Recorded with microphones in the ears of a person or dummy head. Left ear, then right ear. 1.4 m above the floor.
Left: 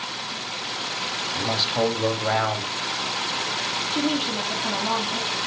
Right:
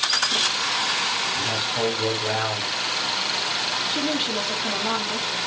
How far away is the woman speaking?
About 2.5 m.